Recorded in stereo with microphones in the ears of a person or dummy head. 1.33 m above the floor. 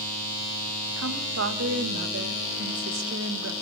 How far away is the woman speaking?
About 1.7 m.